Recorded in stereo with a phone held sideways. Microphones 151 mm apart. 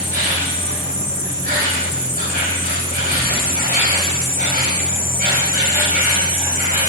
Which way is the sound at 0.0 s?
85° right.